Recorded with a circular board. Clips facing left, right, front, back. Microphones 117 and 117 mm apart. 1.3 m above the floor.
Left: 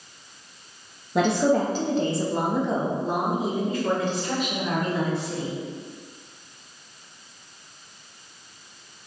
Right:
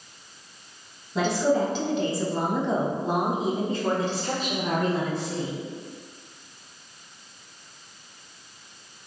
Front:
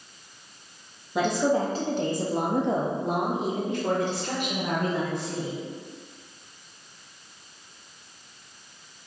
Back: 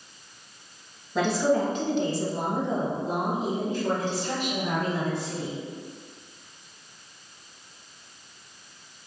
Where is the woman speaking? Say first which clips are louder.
Left 2 dB, even; 75° left, 0.8 m; by 5.5 s 40° right, 2 m.